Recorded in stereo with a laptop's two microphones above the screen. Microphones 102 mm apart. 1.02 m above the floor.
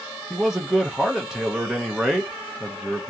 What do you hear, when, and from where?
0.3 s a man speaking: 5° right (ahead or behind), 0.6 m